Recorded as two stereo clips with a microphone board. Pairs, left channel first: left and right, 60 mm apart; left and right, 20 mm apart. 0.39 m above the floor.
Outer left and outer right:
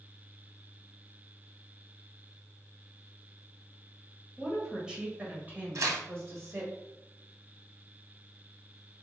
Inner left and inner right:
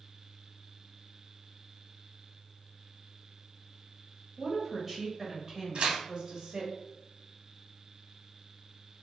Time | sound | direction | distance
4.4 | a woman speaking | centre (ahead or behind) | 2 m
5.8 | tearing paper | 65° right (ahead or behind) | 1.0 m